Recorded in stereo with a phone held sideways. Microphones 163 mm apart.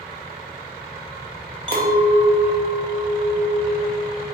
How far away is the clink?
About 0.5 m.